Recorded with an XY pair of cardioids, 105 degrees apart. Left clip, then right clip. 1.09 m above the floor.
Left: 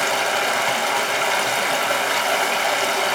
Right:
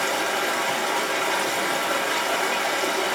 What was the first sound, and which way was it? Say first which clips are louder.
Running water: left 4 dB; 50° left.